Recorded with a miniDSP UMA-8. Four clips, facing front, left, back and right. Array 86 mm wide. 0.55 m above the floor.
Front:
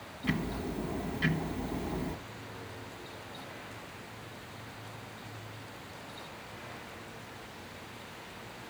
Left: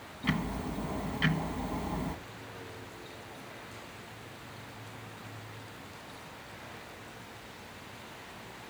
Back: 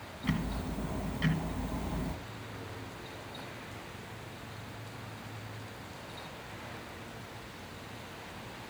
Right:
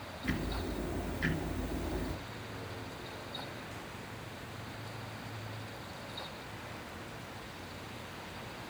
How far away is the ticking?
About 1.5 m.